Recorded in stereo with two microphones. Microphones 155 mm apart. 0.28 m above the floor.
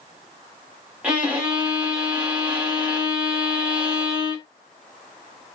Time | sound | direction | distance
1.0 | a violin | 10° right (ahead or behind) | 1.2 m